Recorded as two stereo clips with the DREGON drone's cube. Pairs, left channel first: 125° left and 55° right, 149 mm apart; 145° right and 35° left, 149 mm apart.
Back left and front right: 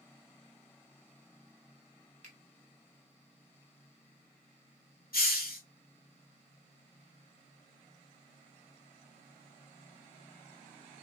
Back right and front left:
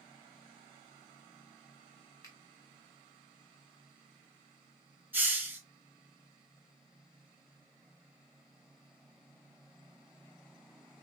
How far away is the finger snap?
About 1.3 m.